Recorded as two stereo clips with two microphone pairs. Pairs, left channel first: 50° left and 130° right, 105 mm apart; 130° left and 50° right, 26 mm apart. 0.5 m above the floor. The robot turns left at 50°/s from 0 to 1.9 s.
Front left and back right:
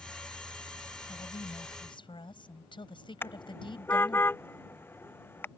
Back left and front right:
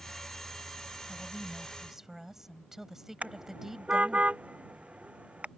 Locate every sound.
1.1 s a woman speaking: 65° left; by 4.2 s 25° left
3.2 s a car horn: 15° right